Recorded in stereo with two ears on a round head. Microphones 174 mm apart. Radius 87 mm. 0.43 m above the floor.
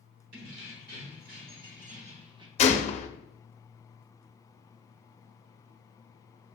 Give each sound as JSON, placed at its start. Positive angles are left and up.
{"t": 0.3, "sound": "keys jangling", "side_deg": -60, "distance_m": 1.8}
{"t": 2.6, "sound": "a gunshot", "side_deg": 35, "distance_m": 0.6}